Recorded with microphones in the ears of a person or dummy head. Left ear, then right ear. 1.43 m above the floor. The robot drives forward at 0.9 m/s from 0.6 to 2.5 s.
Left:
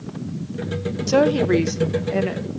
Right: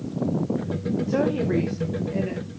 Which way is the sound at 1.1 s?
85° left.